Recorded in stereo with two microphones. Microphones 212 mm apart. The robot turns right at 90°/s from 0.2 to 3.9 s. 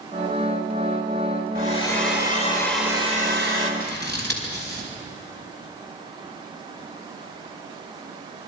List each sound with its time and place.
1.6 s a hair dryer: 70° left, 3.5 m; by 3.7 s 95° right, 3.5 m
3.8 s scissors: 45° right (ahead or behind), 4.5 m; by 4.9 s 55° right (ahead or behind), 4.5 m